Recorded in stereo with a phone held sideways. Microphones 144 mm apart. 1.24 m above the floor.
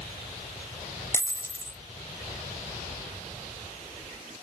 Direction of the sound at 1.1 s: 20° left (ahead or behind).